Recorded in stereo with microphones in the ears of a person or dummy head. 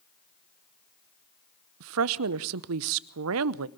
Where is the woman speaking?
85° right, 0.7 m.